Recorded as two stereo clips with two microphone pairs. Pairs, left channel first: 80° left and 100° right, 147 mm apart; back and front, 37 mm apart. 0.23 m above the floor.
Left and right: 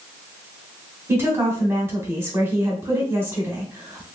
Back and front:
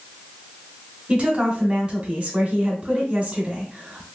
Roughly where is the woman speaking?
Ahead right.